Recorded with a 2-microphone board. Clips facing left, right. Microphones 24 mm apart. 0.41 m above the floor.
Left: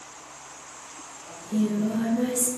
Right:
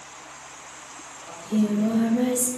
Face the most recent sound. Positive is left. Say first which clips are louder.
# right 2 dB
turn(degrees=-80)